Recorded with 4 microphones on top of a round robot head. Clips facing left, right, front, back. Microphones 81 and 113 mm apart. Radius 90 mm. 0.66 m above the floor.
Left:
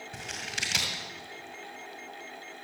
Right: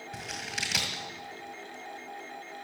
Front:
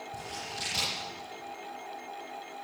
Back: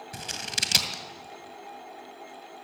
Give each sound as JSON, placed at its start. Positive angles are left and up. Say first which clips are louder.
{"t": 0.1, "sound": "scissors", "louder": "right 1 dB, back 1 dB", "azimuth_deg": 180, "distance_m": 2.0}